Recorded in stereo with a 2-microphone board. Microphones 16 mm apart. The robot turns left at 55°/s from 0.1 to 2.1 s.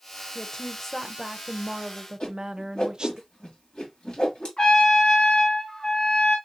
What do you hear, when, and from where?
0.3 s a woman speaking: 45° left, 0.6 m; by 3.2 s 50° right, 0.6 m
2.2 s a whoosh: 70° left (ahead or behind), 2.5 m
4.6 s a trumpet: 70° left (ahead or behind), 2.5 m